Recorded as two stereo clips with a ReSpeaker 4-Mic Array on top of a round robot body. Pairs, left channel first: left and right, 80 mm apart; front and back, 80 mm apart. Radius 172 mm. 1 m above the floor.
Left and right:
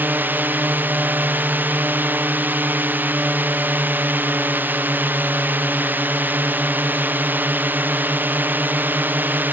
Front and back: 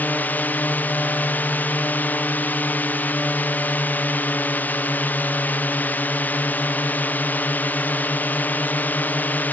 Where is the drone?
50° right.